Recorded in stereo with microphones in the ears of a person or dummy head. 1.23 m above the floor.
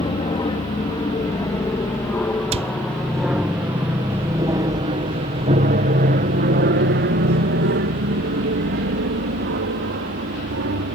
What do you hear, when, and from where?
0.0 s an aircraft: 20° left (ahead or behind); by 10.9 s 50° right (ahead or behind)
2.5 s a cupboard door: 30° right (ahead or behind)